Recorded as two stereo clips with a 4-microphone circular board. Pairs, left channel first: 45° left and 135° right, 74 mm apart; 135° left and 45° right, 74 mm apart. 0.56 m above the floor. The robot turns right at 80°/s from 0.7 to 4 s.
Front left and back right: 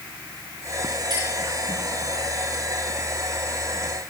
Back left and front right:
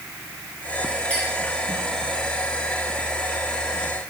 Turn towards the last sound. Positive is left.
turn(degrees=80)